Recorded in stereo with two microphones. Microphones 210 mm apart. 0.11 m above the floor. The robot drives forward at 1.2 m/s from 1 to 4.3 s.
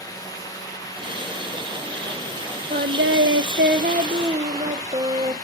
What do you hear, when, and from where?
2.7 s singing: 40° right (ahead or behind), 1.0 m; by 5.3 s 25° right (ahead or behind), 1.4 m